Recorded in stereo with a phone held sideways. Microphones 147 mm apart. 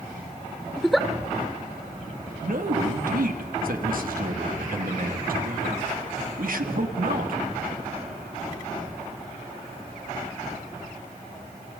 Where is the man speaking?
75° right (ahead or behind), 2.5 m.